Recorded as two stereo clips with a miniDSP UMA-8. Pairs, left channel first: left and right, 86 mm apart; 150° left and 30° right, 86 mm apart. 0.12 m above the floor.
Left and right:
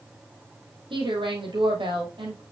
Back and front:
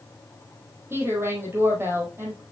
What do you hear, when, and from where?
0.9 s a woman speaking: 90° right, 4 m